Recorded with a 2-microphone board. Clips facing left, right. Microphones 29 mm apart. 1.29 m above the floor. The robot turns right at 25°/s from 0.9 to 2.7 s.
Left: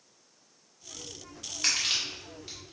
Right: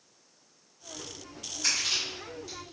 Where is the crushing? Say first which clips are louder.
Left 1 dB; 55° left (ahead or behind), 1.3 m; by 2.6 s 30° left (ahead or behind), 1.3 m.